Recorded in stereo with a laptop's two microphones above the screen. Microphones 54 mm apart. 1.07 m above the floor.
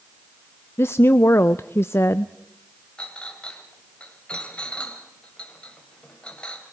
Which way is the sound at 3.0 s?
20° left (ahead or behind).